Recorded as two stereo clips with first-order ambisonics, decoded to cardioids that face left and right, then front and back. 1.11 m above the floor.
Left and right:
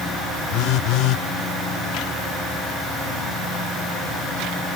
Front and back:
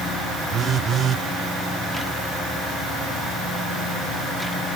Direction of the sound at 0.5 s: 120° left.